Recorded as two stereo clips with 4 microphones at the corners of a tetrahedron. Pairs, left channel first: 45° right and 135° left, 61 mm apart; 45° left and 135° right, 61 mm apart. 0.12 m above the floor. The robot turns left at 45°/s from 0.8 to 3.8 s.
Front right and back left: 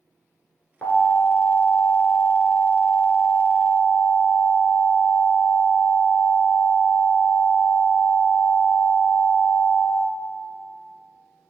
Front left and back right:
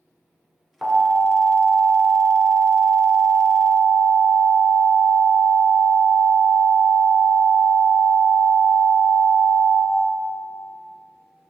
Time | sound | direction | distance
0.8 | an alarm | 60° right | 1.0 m